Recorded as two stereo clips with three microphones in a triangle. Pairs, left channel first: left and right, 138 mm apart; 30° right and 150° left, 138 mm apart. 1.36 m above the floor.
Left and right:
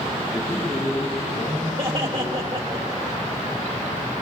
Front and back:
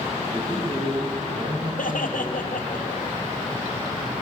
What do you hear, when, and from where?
0.3 s a man speaking: 160° left, 9 m
1.8 s laughter: 40° right, 0.9 m